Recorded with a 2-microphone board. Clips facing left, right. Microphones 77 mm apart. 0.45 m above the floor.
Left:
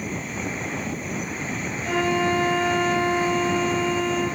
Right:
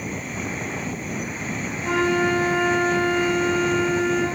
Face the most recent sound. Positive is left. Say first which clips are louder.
# right 2 dB
turn(degrees=-60)  # may be behind; listen again after turning